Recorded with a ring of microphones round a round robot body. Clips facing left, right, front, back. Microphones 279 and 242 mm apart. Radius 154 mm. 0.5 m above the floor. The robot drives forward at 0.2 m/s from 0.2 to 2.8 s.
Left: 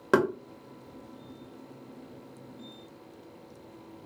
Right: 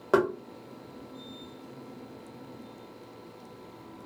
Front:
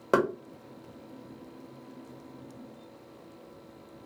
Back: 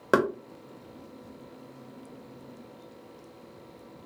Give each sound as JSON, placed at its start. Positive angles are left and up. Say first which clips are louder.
{"t": 0.1, "sound": "knocking", "louder": "even, back 1 dB", "azimuth_deg": 120, "distance_m": 0.9}